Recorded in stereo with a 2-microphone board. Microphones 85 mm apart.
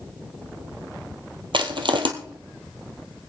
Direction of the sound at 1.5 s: 65° right (ahead or behind).